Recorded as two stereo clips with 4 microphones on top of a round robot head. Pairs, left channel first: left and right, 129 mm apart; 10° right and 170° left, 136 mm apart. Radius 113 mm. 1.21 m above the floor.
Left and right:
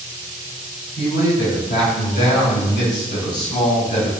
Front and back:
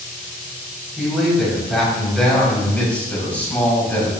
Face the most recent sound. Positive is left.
turn(degrees=65)